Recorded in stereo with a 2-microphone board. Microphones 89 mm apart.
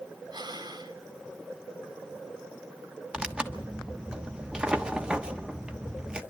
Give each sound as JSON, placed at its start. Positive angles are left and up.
{"t": 0.3, "sound": "breathing", "side_deg": -50, "distance_m": 2.5}
{"t": 3.1, "sound": "tearing paper", "side_deg": -10, "distance_m": 1.2}